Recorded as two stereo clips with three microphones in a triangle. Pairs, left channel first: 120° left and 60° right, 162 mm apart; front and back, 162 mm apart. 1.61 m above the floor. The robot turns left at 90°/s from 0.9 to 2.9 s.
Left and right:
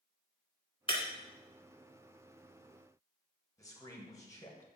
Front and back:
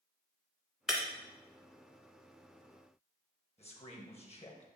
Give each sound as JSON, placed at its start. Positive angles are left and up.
{"t": 0.9, "sound": "breaking glass", "azimuth_deg": 95, "distance_m": 1.8}
{"t": 3.6, "sound": "a man speaking", "azimuth_deg": 50, "distance_m": 1.6}